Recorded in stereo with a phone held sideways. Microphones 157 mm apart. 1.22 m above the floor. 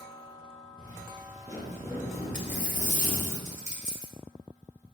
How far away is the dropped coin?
About 1.1 m.